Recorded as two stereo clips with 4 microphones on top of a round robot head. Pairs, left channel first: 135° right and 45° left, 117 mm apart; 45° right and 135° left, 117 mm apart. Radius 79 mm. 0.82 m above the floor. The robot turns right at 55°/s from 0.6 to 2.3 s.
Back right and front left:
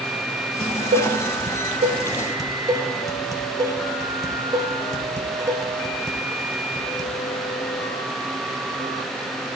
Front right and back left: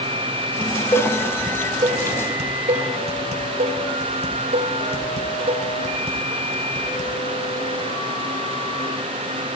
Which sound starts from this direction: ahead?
Dishes clattering, at 0.6 s.